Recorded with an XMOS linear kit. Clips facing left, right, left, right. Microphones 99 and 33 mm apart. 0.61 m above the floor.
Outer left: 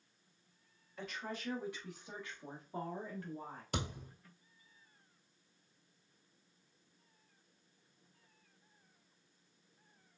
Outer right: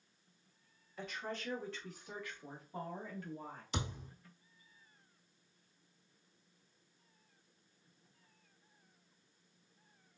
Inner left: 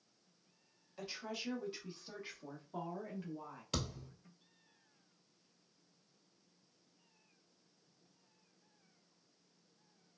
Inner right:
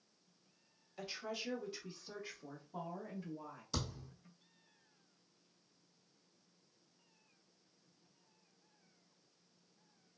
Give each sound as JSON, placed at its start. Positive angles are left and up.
{"t": 1.0, "sound": "a woman speaking", "side_deg": 0, "distance_m": 1.0}
{"t": 3.7, "sound": "a thud", "side_deg": 60, "distance_m": 1.3}